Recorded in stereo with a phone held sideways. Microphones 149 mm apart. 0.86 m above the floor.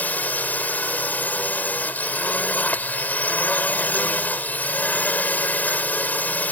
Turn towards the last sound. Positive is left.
turn(degrees=10)  # may be behind; listen again after turning